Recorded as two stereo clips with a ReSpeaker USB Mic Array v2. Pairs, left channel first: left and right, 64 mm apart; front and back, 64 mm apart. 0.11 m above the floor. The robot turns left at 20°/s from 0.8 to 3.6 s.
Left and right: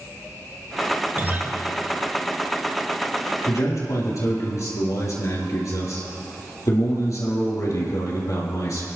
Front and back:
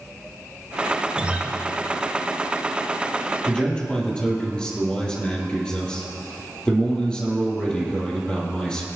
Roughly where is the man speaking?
Left.